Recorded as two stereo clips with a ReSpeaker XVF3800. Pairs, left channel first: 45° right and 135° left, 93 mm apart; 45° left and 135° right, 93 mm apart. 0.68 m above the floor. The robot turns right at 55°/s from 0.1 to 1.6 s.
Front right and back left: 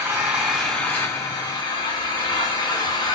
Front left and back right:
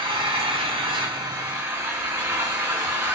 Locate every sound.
0.0 s an engine running: 160° right, 1.2 m; by 3.1 s 75° right, 1.2 m